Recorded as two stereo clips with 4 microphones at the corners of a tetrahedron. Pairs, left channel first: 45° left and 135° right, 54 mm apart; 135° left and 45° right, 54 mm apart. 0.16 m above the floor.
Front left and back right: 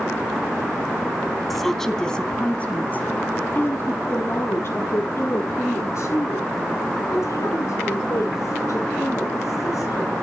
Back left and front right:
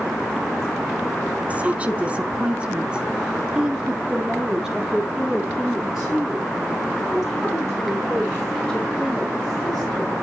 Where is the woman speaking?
40° right, 1.7 m; by 10.1 s 45° left, 6 m.